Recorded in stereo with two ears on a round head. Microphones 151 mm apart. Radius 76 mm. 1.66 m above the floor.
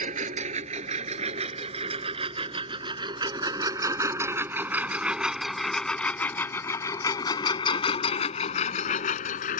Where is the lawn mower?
45° right (ahead or behind); by 9.6 s 55° left (ahead or behind).